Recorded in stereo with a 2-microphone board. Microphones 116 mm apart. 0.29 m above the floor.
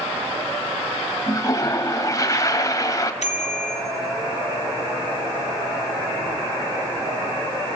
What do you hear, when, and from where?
1.3 s a toilet flushing: 30° left (ahead or behind), 1.6 m
3.2 s a bicycle bell: 70° left (ahead or behind), 2.5 m